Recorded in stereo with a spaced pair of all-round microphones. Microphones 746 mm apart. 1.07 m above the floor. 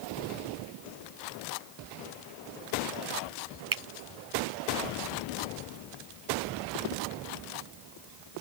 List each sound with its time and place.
3.7 s a finger snap: 30° right (ahead or behind)